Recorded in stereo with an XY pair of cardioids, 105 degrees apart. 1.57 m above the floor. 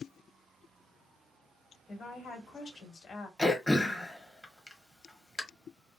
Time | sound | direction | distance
1.9 | a woman speaking | 50° left | 1.5 m
3.4 | throat clearing | 10° left | 1.2 m